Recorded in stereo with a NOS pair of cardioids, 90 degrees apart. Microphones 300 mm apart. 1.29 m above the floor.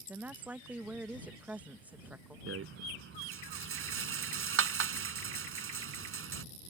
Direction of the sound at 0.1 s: 5° right.